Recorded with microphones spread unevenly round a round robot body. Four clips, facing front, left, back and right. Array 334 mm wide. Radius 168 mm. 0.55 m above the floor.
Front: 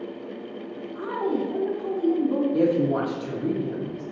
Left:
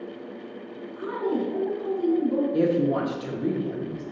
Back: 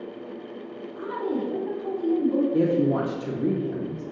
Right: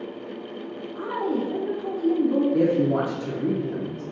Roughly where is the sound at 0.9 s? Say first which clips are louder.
Right 1 dB, front 2 dB; ahead right.